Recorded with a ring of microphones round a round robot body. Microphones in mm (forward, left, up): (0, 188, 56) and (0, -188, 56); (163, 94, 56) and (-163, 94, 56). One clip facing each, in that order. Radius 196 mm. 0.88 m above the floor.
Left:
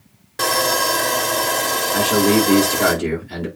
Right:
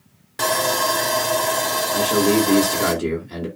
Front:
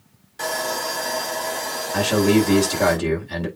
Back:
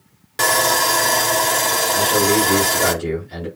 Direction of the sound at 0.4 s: 175° right.